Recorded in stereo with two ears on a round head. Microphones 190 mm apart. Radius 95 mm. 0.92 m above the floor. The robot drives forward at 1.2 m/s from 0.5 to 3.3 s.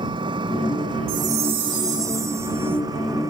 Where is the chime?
45° right (ahead or behind); by 2.8 s 10° right (ahead or behind).